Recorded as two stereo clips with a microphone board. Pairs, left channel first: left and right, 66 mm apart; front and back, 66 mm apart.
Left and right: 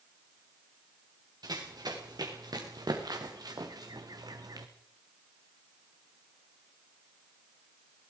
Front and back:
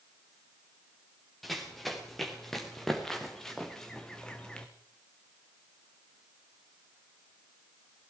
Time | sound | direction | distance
1.4 | running footsteps | 90° right | 5 m